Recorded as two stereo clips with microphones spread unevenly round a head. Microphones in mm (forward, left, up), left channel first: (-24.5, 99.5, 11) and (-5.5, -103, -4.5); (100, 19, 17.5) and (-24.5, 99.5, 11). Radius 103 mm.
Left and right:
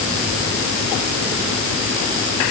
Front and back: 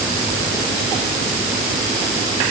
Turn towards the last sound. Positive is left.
No sound to turn to.